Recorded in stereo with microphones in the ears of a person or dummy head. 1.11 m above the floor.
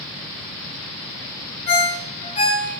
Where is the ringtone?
30° left (ahead or behind), 2.5 m.